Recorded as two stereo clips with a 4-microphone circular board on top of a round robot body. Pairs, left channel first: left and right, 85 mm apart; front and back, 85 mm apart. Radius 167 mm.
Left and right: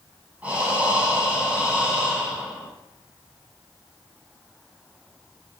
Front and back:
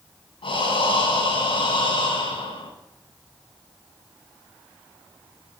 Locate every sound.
0.4 s breathing: 15° right, 10 m